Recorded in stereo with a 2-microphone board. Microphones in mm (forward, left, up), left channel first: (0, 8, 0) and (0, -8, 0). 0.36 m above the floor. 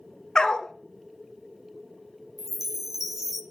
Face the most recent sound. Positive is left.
turn(degrees=-20)  # may be behind; listen again after turning